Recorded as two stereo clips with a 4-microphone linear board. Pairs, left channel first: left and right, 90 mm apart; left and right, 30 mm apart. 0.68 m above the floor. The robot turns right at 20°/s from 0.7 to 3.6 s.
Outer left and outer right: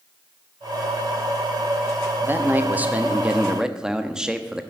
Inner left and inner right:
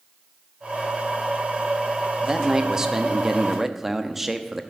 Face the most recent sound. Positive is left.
turn(degrees=-10)  # may be behind; listen again after turning